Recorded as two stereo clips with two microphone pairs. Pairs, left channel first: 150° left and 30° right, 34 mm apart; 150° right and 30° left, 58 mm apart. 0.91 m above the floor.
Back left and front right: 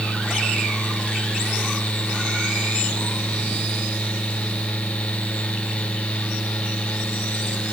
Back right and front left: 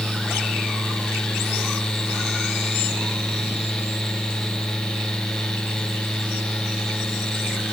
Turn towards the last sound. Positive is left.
No sound to turn to.